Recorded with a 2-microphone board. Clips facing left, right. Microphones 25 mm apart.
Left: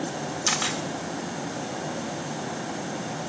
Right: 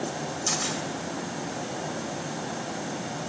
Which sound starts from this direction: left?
A camera shutter, at 0.5 s.